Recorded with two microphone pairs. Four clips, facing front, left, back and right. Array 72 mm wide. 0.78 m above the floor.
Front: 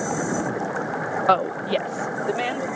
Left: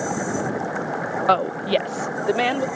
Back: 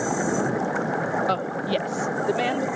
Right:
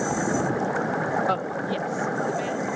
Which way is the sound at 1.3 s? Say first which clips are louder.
Left 7 dB, front 4 dB; 40° left.